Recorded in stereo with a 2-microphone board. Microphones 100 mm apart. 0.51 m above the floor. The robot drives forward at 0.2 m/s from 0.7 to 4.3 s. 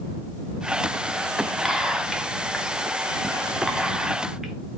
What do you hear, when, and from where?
1.6 s whispering: 5° right (ahead or behind), 0.8 m